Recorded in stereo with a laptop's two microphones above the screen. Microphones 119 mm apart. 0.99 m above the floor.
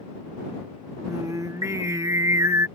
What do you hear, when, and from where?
1.1 s singing: 25° right (ahead or behind)